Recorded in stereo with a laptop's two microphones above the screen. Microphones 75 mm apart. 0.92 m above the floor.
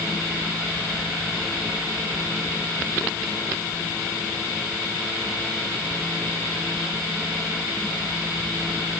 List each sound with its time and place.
Only background noise.